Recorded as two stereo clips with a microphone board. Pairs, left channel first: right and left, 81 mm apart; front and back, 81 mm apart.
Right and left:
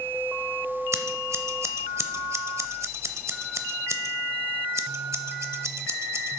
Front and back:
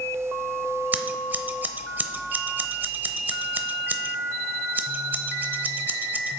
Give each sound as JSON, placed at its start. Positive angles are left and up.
{"t": 0.9, "sound": "scissors", "azimuth_deg": 120, "distance_m": 0.7}